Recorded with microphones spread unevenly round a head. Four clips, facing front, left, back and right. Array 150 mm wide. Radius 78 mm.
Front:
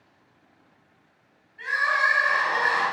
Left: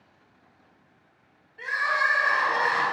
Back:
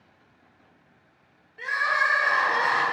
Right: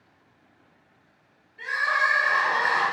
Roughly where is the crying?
Behind.